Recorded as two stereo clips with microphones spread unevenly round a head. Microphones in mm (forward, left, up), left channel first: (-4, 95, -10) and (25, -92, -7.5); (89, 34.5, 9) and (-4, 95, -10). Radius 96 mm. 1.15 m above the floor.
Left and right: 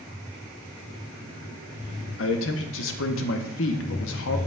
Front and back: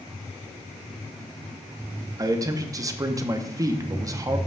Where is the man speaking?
95° left, 0.8 m.